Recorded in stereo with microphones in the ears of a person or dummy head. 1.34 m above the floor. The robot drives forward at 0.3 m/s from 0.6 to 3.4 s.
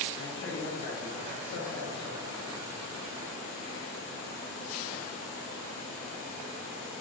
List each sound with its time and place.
0.2 s a man speaking: 70° left (ahead or behind), 0.9 m; by 2.8 s 65° left (ahead or behind), 0.9 m